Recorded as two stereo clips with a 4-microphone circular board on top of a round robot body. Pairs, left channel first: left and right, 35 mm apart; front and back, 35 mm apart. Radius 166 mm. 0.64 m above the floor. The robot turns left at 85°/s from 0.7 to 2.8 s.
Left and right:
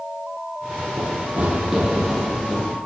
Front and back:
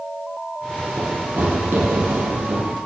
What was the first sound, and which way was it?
Running footsteps, 120° right.